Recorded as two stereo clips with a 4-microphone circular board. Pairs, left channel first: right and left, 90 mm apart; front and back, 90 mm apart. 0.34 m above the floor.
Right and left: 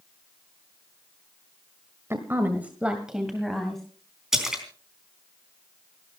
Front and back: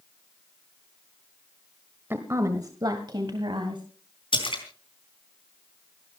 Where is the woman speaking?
130° left, 1.3 m; by 3.8 s 175° right, 2 m.